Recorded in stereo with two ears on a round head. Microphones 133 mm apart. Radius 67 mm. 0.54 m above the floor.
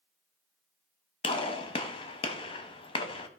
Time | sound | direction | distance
1.2 | a gunshot | 35° left (ahead or behind) | 0.9 m